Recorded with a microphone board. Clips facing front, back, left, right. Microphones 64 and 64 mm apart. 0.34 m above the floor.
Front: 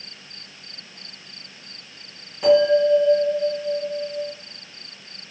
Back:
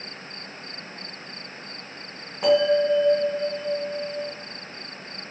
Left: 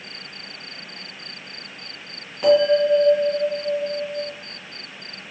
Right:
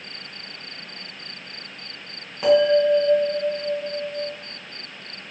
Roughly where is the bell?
Behind.